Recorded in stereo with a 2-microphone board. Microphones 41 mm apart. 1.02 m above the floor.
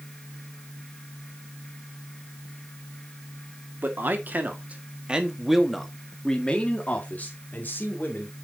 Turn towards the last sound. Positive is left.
turn(degrees=50)  # may be behind; listen again after turning